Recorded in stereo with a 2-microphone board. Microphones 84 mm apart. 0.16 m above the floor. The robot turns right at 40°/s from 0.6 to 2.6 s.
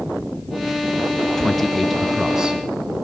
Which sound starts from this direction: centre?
A man speaking, at 1.4 s.